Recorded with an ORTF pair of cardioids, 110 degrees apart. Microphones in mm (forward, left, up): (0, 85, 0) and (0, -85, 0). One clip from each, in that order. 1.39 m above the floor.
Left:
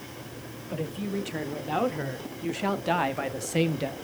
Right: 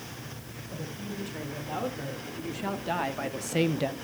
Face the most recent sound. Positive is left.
turn(degrees=-10)